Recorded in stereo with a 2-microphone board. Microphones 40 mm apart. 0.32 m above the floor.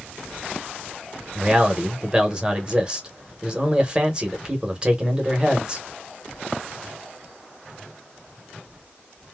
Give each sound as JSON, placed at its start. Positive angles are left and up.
{"t": 1.4, "sound": "a man speaking", "side_deg": -20, "distance_m": 0.9}